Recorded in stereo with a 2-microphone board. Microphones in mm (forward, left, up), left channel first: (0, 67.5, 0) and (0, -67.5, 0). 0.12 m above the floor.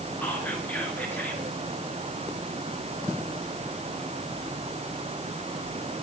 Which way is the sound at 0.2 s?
15° left (ahead or behind).